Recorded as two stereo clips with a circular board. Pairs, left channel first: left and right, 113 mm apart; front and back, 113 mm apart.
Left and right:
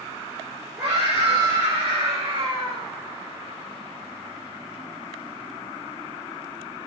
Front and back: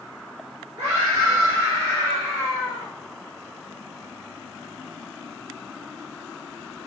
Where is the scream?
110° right, 4 m; by 2.9 s 135° right, 4 m.